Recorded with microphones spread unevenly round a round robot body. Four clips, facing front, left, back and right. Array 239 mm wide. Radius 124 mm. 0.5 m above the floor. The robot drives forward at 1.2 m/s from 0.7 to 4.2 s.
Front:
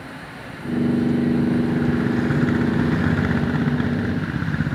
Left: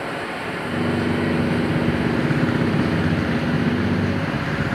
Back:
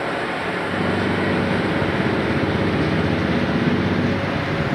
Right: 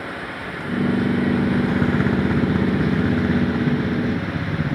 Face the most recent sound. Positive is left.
turn(degrees=170)